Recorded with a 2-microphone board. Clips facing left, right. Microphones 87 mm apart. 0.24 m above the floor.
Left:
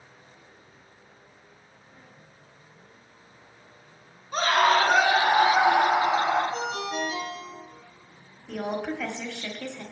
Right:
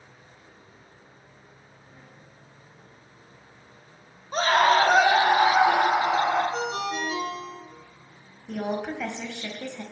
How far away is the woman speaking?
About 1.1 m.